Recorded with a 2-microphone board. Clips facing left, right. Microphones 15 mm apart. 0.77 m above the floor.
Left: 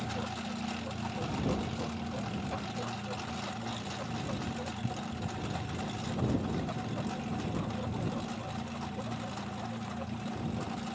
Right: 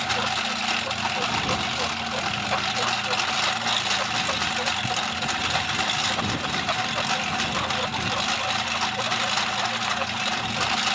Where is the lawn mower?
60° right (ahead or behind); by 10.9 s 70° right (ahead or behind).